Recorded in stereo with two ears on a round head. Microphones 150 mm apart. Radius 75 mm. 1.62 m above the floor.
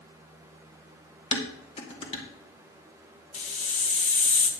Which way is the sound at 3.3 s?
40° left (ahead or behind).